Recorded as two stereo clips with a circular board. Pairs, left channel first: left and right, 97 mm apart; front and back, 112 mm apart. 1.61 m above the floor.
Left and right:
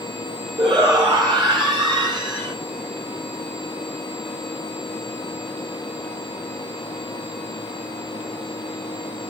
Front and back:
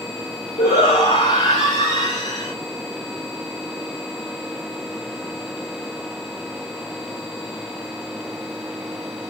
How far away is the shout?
About 7 m.